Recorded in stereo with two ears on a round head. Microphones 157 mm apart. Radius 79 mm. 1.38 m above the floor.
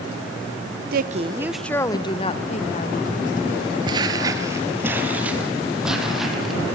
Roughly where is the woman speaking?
Right.